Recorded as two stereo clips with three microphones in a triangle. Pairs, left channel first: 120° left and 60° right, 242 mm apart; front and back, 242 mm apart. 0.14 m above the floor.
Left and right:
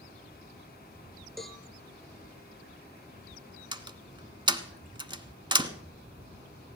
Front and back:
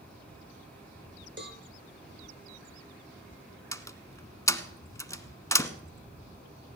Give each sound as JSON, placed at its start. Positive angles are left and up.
{"t": 1.4, "sound": "a cowbell", "azimuth_deg": -150, "distance_m": 1.3}
{"t": 3.7, "sound": "a door slam", "azimuth_deg": -50, "distance_m": 1.0}